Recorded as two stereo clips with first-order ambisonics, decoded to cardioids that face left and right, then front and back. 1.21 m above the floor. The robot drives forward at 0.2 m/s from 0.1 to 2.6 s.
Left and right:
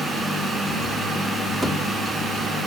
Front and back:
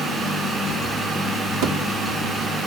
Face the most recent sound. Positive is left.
turn(degrees=-175)